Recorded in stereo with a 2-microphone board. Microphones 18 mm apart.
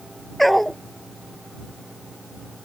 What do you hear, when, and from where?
0.4 s a dog barking: 5° left (ahead or behind)